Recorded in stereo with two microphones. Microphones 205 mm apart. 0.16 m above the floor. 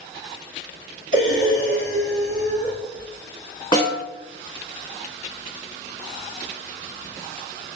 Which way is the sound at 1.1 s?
75° right (ahead or behind).